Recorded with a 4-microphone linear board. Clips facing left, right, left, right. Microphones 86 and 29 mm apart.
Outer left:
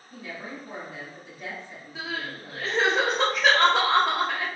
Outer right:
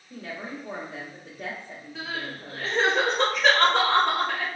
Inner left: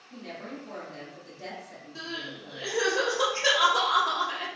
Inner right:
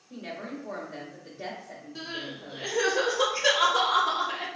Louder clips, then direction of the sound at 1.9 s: Outer left 1 dB, even; 5° left (ahead or behind).